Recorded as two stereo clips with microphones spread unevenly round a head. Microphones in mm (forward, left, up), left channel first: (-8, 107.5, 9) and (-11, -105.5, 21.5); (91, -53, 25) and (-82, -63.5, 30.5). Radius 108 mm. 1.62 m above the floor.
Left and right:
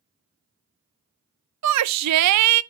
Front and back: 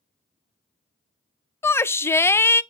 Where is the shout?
75° right, 0.5 m.